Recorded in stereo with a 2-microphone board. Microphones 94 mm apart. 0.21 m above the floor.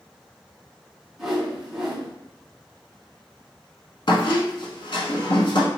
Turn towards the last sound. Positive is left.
turn(degrees=60)  # may be behind; listen again after turning